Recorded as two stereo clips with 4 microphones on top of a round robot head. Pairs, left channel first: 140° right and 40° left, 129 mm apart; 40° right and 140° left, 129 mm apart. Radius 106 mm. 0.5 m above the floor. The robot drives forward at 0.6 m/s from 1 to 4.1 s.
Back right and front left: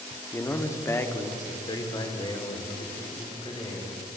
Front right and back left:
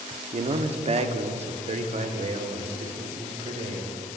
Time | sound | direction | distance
0.3 | a man speaking | 155° left | 1.0 m